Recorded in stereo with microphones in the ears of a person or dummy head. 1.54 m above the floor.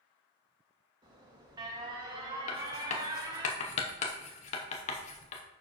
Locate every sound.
1.0 s an alarm: 20° right (ahead or behind), 1.8 m
2.5 s writing: 45° left (ahead or behind), 0.8 m